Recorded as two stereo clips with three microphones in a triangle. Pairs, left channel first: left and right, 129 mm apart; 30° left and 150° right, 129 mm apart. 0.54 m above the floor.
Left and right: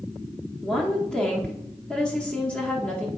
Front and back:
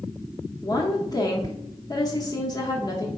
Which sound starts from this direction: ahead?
A woman speaking, at 0.6 s.